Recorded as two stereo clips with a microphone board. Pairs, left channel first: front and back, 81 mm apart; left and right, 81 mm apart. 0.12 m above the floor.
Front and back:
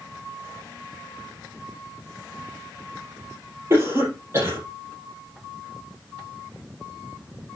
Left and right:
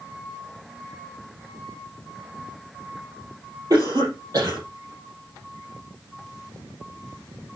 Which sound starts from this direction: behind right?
A cough, at 3.7 s.